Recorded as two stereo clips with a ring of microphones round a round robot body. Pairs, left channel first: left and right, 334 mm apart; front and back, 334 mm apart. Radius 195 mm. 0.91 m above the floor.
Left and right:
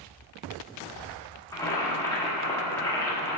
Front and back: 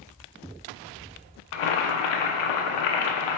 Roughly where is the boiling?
Ahead.